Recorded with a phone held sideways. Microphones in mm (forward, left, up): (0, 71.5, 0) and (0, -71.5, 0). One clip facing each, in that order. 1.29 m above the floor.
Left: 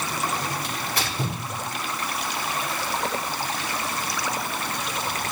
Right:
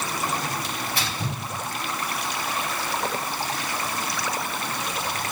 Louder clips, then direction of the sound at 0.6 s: Even; 65° left (ahead or behind).